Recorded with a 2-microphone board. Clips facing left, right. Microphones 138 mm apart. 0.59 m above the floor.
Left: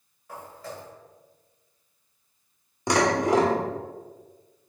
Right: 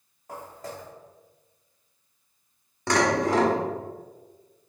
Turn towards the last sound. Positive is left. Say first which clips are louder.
# left 1 dB
turn(degrees=15)  # may be behind; listen again after turning